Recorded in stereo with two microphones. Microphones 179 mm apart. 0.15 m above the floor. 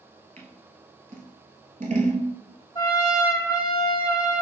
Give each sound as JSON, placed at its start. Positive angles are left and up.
{"t": 0.4, "sound": "scissors", "side_deg": -45, "distance_m": 0.9}
{"t": 2.8, "sound": "a trumpet", "side_deg": 20, "distance_m": 2.0}